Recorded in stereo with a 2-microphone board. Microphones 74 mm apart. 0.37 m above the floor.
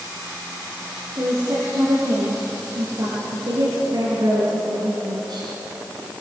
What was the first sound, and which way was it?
A woman speaking, 55° right (ahead or behind).